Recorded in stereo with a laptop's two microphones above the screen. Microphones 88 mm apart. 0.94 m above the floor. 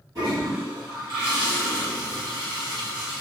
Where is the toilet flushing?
40° right (ahead or behind), 1.4 m.